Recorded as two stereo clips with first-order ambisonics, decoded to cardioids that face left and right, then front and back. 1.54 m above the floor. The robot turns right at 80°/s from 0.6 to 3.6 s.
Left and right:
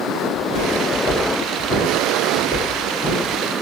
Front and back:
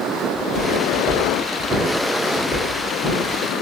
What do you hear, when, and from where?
0.3 s footsteps: 30° left, 1.8 m; by 3.4 s 15° left, 1.7 m